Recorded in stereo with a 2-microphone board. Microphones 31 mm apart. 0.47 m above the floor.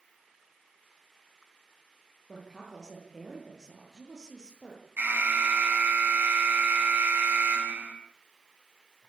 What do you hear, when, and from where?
2.3 s a woman speaking: 20° right (ahead or behind), 10 m
5.0 s an alarm: 65° right (ahead or behind), 6 m